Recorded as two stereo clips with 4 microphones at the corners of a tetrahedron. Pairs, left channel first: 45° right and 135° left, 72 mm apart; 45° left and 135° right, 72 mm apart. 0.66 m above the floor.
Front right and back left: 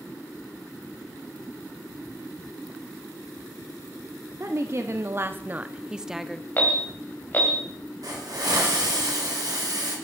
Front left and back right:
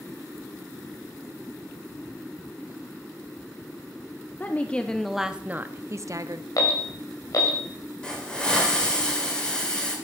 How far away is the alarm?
About 1.9 m.